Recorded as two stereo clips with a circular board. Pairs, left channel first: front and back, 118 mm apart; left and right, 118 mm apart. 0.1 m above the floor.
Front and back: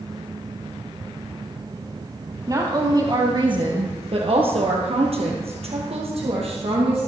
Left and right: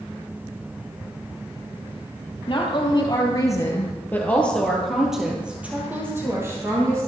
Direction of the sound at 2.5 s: 125° left.